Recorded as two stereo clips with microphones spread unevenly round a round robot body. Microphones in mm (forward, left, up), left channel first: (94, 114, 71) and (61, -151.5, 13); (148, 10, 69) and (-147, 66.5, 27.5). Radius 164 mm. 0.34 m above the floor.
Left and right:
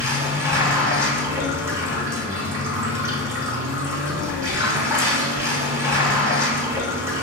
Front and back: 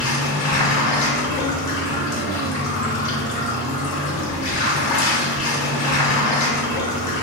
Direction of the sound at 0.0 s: 30° right.